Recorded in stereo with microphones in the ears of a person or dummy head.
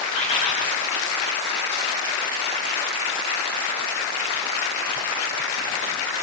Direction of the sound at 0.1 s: 45° left (ahead or behind).